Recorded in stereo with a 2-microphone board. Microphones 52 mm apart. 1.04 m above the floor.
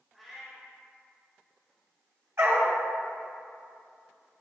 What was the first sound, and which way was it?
A cat meowing, centre (ahead or behind).